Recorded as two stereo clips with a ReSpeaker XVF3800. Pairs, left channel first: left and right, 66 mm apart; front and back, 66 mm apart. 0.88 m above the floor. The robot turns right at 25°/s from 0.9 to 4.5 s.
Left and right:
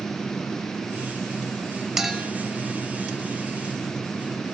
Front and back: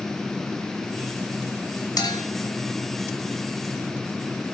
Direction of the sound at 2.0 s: 5° right.